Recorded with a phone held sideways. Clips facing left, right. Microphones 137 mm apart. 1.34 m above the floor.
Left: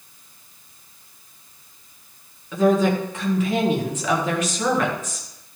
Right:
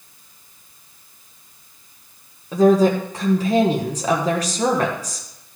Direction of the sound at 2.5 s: 35° right (ahead or behind).